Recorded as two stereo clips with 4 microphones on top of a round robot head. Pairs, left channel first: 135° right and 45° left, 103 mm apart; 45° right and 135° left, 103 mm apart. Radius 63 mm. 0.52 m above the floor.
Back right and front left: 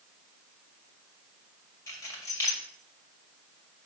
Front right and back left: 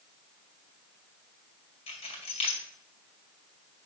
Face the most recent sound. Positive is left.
turn(degrees=-70)